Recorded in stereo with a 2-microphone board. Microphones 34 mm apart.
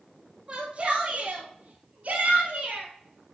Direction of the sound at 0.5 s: 25° right (ahead or behind).